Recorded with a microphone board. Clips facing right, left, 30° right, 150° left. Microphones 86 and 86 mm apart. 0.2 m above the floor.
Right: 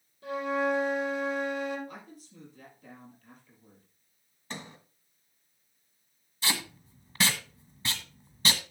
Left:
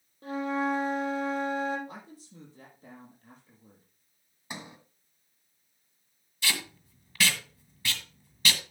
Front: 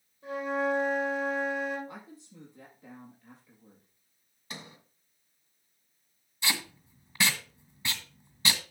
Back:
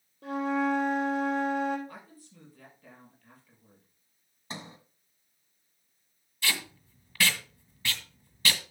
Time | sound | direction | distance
0.2 | a flute | 140° left | 5 m
1.9 | a woman speaking | 40° left | 4.5 m
4.5 | a sliding door | 155° left | 1.3 m
6.4 | tape being pulled | 75° right | 1.7 m